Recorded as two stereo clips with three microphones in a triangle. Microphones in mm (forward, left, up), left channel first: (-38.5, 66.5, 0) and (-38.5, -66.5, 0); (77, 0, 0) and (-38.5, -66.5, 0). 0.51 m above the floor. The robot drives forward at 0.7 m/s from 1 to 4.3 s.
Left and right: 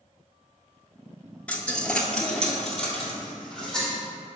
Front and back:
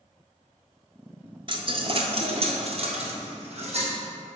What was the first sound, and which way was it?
A dropped coin, 170° left.